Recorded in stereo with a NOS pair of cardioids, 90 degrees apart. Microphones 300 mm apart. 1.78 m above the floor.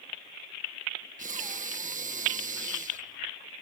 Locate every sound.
1.2 s breathing: 25° right